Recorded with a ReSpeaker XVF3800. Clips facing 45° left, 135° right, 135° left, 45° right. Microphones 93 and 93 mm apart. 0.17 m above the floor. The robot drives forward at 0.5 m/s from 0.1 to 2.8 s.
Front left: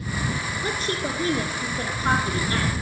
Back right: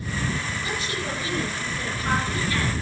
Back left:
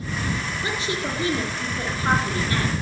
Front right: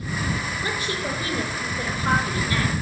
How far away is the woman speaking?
About 3 m.